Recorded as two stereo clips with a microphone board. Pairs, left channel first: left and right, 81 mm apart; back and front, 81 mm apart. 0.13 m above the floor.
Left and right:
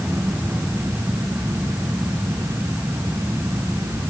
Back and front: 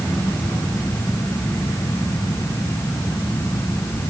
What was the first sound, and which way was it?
Only background noise.